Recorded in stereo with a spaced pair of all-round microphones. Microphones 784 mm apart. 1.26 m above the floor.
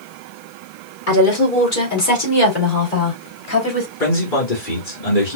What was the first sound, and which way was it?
A woman speaking, 80° left.